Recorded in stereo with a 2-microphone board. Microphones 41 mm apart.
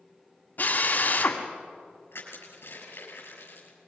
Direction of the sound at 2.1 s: 75° left (ahead or behind).